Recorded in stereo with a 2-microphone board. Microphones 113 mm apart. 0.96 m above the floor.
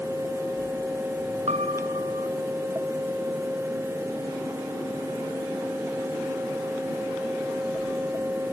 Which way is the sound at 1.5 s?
70° right (ahead or behind).